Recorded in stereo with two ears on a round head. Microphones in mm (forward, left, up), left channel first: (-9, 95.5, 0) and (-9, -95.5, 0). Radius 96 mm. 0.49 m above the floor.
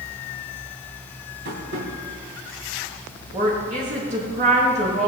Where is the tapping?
55° right (ahead or behind), 4 m.